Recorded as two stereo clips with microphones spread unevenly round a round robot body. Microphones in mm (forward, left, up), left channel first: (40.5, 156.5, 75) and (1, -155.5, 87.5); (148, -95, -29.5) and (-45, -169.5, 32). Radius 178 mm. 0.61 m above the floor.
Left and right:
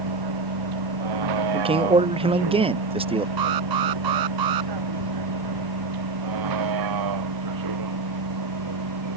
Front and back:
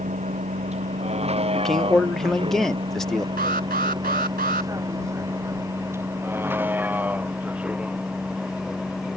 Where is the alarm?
115° right.